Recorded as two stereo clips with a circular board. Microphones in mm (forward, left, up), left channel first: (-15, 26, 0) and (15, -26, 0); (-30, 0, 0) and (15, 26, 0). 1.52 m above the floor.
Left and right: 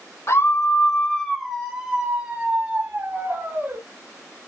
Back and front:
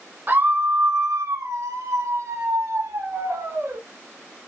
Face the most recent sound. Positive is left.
turn(degrees=-10)